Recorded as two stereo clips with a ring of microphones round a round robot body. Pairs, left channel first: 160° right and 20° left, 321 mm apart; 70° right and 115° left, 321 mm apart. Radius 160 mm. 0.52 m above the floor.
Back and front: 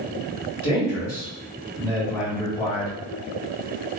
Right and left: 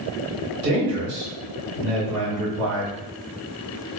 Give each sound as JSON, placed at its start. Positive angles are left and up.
{"t": 0.6, "sound": "a man speaking", "azimuth_deg": 125, "distance_m": 1.5}